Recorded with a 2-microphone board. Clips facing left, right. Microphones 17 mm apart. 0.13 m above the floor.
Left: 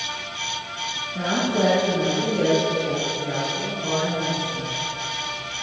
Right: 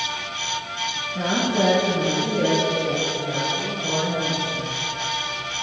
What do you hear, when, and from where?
1.1 s a woman speaking: centre (ahead or behind), 2.5 m; by 4.8 s 45° left (ahead or behind), 6.5 m